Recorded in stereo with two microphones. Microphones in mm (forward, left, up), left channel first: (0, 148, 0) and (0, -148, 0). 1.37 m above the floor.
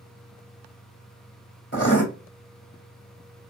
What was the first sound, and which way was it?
Writing, 40° left (ahead or behind).